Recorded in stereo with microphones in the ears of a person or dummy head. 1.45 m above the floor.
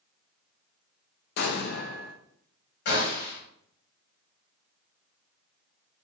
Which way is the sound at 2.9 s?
65° left (ahead or behind).